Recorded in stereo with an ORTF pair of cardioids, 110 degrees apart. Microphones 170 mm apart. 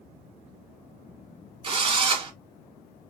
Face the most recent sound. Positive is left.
turn(degrees=-35)